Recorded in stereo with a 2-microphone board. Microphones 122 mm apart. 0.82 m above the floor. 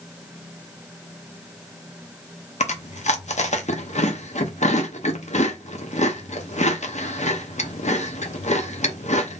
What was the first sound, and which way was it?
Chewing, 70° left (ahead or behind).